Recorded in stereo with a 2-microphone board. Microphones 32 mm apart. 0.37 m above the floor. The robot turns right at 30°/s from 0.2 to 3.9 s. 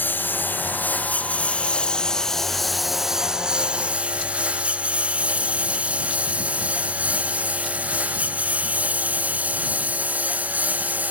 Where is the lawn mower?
85° left; by 11.1 s 50° right (ahead or behind).